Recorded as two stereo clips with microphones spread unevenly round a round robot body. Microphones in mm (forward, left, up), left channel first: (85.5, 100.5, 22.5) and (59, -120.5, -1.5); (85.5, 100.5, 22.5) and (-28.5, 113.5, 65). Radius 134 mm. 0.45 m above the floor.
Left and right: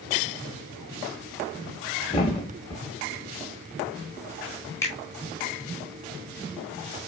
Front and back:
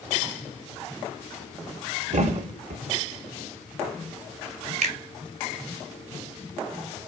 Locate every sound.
2.1 s a thud: 155° left, 0.8 m
4.8 s a finger snap: 165° left, 1.3 m